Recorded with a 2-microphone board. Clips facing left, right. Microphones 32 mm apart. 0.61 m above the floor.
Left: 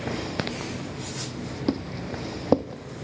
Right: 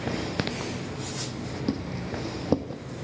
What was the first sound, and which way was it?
Footsteps, 20° left (ahead or behind).